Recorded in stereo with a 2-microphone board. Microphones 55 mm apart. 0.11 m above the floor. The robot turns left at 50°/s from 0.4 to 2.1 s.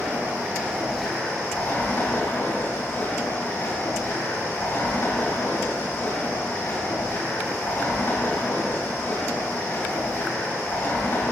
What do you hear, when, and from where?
0.0 s running water: 150° right, 5 m; by 11.3 s 125° left, 5 m